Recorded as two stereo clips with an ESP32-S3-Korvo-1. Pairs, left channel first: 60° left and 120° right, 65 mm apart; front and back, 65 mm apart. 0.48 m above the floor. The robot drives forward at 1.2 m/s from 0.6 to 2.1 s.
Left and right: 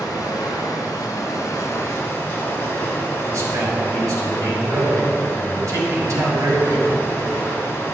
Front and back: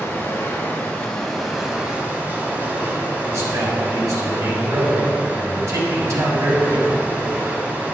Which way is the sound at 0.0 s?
55° left.